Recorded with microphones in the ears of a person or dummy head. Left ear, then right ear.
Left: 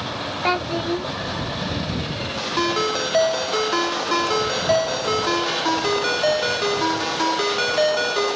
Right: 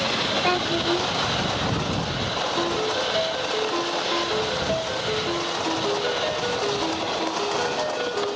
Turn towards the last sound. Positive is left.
turn(degrees=75)  # may be behind; listen again after turning